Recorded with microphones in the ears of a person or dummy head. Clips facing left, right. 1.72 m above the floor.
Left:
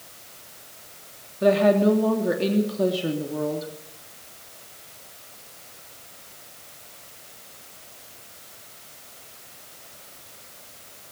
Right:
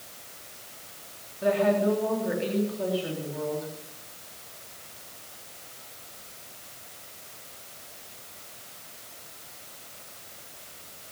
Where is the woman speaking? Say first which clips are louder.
Left 5 dB; 70° left (ahead or behind), 3 m.